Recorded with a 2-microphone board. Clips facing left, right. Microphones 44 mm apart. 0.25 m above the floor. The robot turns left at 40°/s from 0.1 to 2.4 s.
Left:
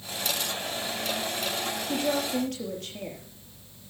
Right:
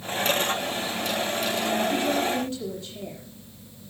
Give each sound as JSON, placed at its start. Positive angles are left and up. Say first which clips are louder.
{"t": 1.9, "sound": "a woman speaking", "louder": "right 3 dB", "side_deg": 80, "distance_m": 6.5}